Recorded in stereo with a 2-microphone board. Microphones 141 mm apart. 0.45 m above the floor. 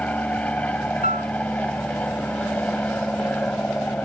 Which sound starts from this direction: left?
A piano, at 1.0 s.